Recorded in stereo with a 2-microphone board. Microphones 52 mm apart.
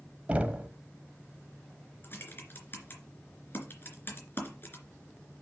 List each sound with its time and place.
0.3 s knocking: 25° right (ahead or behind), 1.0 m
2.0 s typing on a keyboard: 45° left (ahead or behind), 3 m